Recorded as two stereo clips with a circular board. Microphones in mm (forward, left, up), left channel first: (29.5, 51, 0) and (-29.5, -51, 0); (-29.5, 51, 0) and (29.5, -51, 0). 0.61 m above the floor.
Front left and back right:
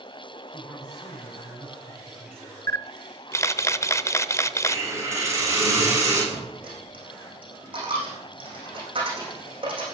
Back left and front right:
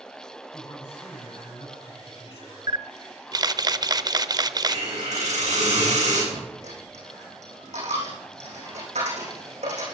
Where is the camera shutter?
5° right, 0.6 m.